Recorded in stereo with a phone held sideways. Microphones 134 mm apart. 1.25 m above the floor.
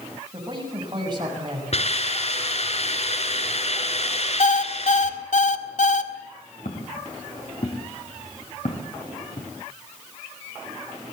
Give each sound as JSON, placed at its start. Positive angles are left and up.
{"t": 0.3, "sound": "a man speaking", "side_deg": -35, "distance_m": 7.5}
{"t": 1.7, "sound": "a hiss", "side_deg": 55, "distance_m": 6.0}
{"t": 4.4, "sound": "an alarm clock", "side_deg": 70, "distance_m": 1.7}
{"t": 6.7, "sound": "footsteps", "side_deg": 65, "distance_m": 5.0}